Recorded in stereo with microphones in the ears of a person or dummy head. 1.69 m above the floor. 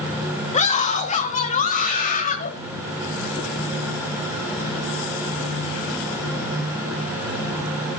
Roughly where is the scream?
Left.